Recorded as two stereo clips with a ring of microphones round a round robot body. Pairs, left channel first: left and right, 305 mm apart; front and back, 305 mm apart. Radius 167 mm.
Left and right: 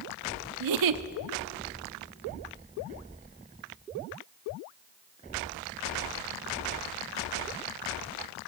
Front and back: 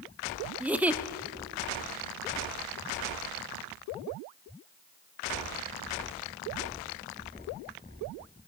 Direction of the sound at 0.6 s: 95° right.